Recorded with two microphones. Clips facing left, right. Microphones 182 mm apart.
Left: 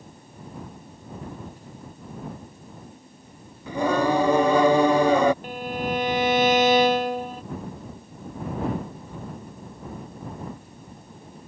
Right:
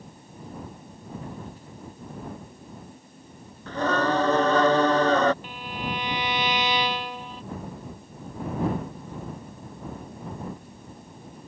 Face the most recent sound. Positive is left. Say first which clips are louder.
# left 6 dB
turn(degrees=45)  # may be behind; listen again after turning